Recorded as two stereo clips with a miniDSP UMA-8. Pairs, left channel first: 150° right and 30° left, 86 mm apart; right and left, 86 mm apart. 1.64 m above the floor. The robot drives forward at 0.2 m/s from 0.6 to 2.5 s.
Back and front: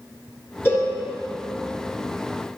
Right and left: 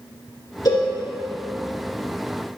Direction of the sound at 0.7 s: 90° right.